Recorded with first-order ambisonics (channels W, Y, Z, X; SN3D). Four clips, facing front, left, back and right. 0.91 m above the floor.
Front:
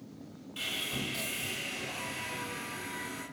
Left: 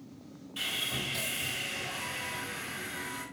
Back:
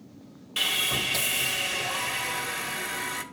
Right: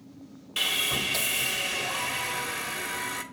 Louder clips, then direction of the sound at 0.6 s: Right 7 dB, back 10 dB; 135° right.